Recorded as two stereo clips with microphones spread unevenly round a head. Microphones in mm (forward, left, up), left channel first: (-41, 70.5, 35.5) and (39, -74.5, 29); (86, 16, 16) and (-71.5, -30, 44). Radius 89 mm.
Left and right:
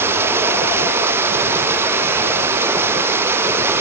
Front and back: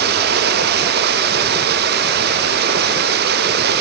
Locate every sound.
0.0 s running water: 140° right